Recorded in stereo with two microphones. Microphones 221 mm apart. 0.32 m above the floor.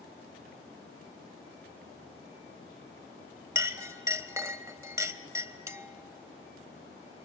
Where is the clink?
15° right (ahead or behind), 0.7 m.